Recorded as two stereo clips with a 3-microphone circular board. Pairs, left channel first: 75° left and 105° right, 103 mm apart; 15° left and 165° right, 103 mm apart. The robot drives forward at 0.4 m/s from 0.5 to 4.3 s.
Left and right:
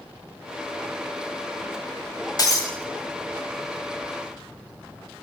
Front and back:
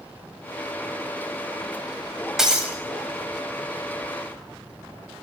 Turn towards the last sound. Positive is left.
turn(degrees=145)